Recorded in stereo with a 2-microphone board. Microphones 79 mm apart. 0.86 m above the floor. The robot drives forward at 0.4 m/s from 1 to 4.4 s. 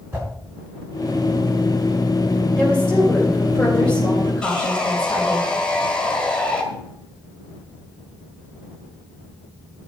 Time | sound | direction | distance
0.1 | a whoosh | 35° right (ahead or behind) | 7 m
2.6 | a woman speaking | 10° left (ahead or behind) | 3.5 m
4.4 | sawing | 15° left (ahead or behind) | 1.8 m